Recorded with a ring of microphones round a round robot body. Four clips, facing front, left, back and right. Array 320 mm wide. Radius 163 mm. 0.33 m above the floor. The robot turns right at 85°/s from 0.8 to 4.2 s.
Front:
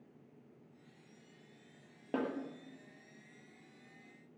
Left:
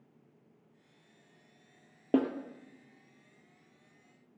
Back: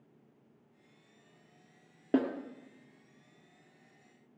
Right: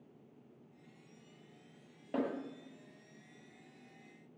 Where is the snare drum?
115° left, 2 m; by 2.3 s 130° left, 2 m.